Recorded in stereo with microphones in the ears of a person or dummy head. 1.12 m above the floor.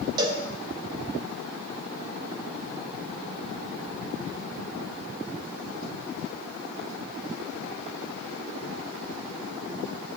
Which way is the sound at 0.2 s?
25° right (ahead or behind).